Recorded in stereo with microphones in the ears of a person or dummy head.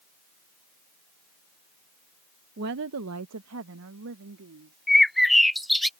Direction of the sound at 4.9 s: Centre (ahead or behind).